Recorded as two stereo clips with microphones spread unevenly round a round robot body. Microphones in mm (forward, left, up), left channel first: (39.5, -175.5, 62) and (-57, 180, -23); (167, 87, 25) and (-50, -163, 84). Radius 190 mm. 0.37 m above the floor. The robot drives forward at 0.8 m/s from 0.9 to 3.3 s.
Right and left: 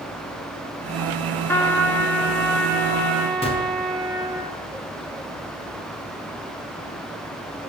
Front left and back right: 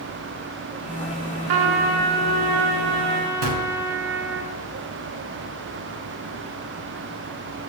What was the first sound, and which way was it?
A trumpet, 160° right.